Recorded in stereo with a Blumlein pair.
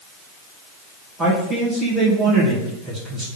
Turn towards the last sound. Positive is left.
turn(degrees=-10)